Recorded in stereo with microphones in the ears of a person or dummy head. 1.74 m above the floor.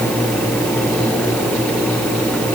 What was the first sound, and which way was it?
Only background noise.